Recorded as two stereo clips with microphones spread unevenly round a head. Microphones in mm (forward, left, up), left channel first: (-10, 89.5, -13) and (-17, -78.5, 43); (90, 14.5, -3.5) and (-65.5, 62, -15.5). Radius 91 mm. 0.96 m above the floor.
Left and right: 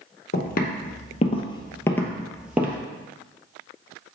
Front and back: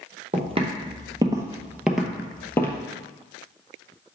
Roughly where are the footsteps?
Behind left.